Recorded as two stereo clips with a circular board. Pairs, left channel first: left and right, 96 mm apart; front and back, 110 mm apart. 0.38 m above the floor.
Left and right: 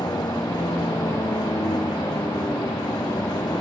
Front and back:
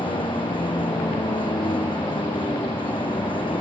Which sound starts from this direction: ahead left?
A vehicle, at 0.0 s.